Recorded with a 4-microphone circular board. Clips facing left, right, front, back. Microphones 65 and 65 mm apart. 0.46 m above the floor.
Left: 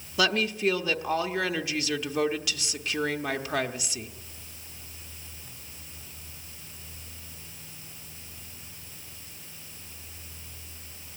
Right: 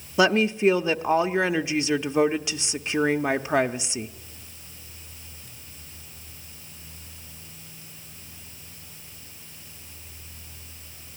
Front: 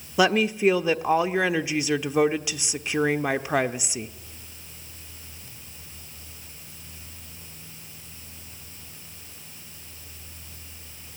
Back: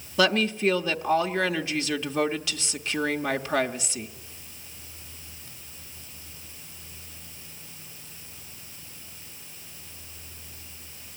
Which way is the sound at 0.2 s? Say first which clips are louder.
Right 6 dB, front 2 dB; 55° right.